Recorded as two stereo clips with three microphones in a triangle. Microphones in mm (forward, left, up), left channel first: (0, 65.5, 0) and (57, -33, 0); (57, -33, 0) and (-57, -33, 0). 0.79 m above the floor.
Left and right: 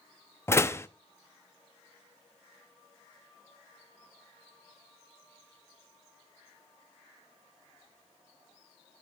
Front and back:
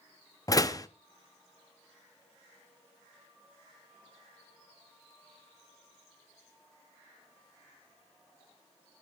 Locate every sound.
0.5 s a door slam: 55° left, 0.8 m